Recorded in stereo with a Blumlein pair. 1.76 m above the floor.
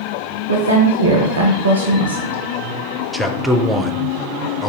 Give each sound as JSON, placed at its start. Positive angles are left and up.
{"t": 0.5, "sound": "a woman speaking", "azimuth_deg": -65, "distance_m": 0.7}
{"t": 3.1, "sound": "a man speaking", "azimuth_deg": -5, "distance_m": 0.5}